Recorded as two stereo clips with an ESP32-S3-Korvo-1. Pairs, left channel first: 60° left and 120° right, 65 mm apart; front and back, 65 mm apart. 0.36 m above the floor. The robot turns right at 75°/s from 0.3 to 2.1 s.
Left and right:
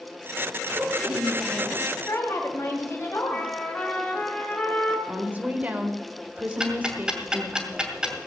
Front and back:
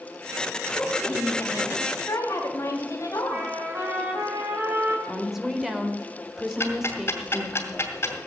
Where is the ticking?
45° right, 2.5 m.